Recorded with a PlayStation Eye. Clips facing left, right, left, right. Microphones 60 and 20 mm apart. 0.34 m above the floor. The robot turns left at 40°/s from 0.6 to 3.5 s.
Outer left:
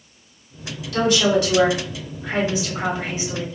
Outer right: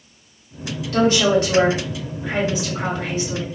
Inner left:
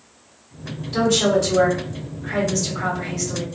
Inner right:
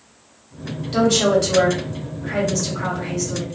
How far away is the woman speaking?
About 1.7 m.